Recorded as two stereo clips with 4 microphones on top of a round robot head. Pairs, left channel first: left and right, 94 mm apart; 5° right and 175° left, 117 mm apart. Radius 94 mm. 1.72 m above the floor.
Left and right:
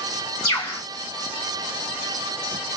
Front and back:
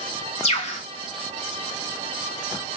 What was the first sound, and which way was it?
A bird, 30° left.